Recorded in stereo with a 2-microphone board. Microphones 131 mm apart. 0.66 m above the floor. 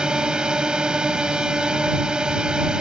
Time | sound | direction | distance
0.0 | a drone | 5° right (ahead or behind) | ?